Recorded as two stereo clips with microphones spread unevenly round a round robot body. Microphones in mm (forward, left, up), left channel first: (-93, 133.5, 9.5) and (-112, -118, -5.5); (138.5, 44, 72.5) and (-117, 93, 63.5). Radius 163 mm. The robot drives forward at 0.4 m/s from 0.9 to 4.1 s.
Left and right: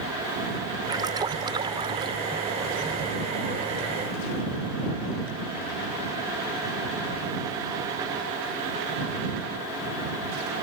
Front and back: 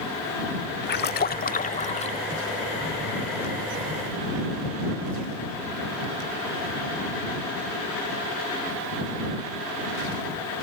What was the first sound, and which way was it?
A splash, 30° right.